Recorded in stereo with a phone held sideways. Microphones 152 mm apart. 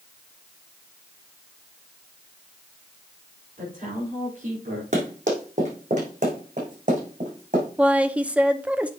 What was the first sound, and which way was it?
A woman speaking, 55° right (ahead or behind).